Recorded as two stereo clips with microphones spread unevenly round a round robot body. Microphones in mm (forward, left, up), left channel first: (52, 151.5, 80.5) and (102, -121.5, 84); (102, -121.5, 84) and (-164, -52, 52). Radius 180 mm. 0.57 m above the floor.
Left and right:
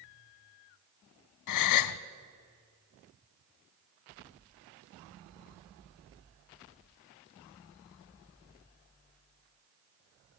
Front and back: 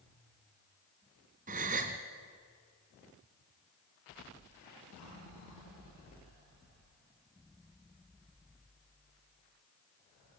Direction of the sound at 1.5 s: 95° left.